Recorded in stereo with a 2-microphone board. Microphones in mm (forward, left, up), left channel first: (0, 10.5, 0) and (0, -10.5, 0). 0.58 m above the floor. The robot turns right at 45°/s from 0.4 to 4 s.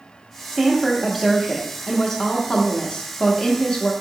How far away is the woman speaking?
About 0.6 m.